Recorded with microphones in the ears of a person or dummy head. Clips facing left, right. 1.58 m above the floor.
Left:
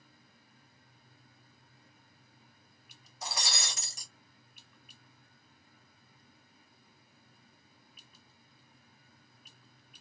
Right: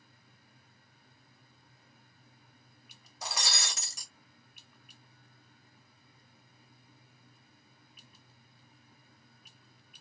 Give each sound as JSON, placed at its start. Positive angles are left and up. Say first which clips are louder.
{"t": 3.2, "sound": "breaking glass", "louder": "right 1 dB", "side_deg": -65, "distance_m": 1.4}